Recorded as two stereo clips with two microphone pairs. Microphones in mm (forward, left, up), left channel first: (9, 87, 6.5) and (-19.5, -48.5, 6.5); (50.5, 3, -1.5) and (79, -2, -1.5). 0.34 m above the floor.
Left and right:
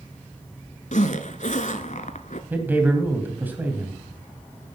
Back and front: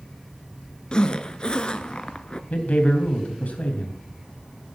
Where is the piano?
I don't hear a piano.